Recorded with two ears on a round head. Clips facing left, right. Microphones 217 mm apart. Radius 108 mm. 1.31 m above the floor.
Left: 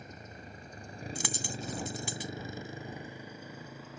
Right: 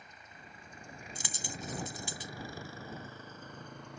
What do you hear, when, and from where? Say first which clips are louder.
0.0 s a motorcycle: left 9 dB; 40° left (ahead or behind); by 4.0 s centre (ahead or behind)
1.1 s a dropped coin: left 5 dB; 55° left (ahead or behind)